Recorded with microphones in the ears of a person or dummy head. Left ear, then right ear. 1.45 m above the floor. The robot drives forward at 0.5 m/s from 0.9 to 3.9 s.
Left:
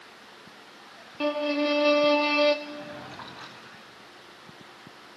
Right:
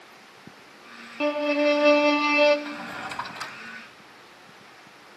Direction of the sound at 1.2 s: 5° right (ahead or behind).